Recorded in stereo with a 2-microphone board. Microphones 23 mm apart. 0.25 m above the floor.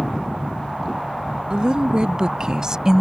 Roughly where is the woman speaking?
Right.